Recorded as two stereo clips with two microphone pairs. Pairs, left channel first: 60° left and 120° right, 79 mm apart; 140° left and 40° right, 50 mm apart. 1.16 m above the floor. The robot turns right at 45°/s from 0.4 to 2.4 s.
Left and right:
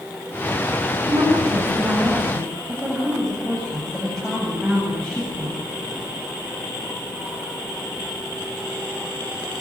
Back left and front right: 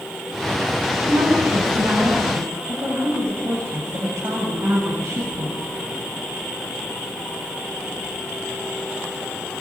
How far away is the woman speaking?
About 8 m.